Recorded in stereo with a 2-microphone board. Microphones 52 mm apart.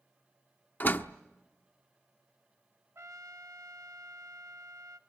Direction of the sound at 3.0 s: 60° right (ahead or behind).